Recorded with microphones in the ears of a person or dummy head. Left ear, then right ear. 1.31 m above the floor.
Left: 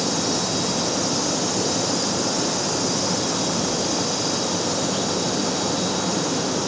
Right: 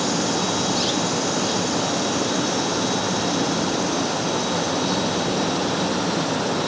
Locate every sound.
Only background noise.